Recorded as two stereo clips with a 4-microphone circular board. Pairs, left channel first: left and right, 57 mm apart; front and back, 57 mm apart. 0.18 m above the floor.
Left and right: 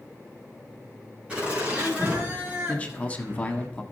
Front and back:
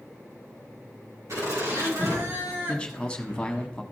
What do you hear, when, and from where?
1.3 s laughter: 160° right, 5.5 m; by 3.7 s 135° right, 2.5 m
2.7 s a man speaking: 55° left, 1.1 m